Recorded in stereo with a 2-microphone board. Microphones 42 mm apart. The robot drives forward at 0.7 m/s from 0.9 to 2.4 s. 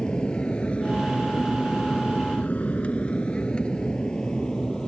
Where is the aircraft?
20° left (ahead or behind); by 4.9 s 15° left (ahead or behind).